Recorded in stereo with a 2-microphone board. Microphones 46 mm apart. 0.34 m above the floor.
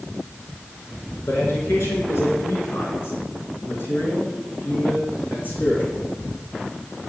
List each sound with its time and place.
1.3 s a man speaking: 80° left, 4.5 m; by 6.0 s 45° left (ahead or behind), 3.5 m